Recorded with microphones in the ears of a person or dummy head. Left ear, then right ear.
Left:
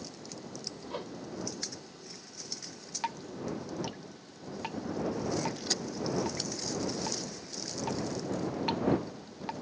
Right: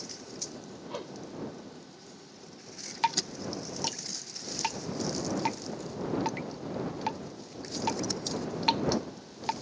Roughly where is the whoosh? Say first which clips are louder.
Right 3 dB; centre.